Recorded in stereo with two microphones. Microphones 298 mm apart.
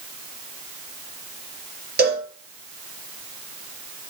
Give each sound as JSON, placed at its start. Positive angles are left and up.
{"t": 2.0, "sound": "a cowbell", "side_deg": -35, "distance_m": 4.0}